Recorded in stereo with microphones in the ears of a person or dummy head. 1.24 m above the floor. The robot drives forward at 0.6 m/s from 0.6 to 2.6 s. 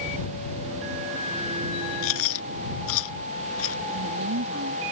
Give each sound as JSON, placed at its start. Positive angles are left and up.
{"t": 2.0, "sound": "chewing", "side_deg": 75}
{"t": 3.9, "sound": "a woman speaking", "side_deg": -75}